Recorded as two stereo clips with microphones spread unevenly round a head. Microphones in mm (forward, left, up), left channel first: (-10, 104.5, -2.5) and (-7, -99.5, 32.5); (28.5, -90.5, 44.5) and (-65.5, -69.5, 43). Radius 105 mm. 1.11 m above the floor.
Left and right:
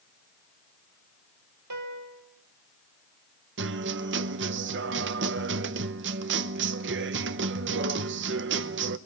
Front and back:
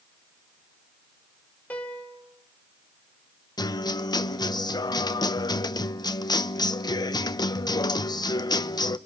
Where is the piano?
85° right, 3 m.